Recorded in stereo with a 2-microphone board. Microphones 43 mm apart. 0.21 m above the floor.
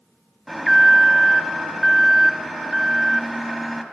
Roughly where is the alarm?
Centre.